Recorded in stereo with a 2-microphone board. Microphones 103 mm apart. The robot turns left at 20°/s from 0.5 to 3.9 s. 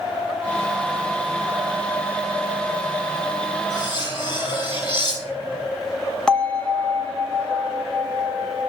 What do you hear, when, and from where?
3.7 s cutlery clinking: 45° left (ahead or behind), 3.5 m; by 5.6 s 50° left (ahead or behind), 3.5 m
6.3 s a bell: 10° left (ahead or behind), 0.9 m